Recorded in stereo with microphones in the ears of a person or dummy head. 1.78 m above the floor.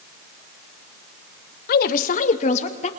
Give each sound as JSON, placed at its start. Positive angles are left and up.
{"t": 1.7, "sound": "a woman speaking", "side_deg": 55, "distance_m": 1.3}